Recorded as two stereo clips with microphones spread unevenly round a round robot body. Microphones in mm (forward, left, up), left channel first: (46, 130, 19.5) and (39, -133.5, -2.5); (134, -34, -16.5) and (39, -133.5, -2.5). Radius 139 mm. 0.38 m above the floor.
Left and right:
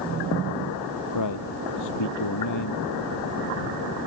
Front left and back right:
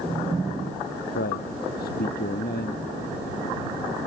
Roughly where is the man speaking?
Left.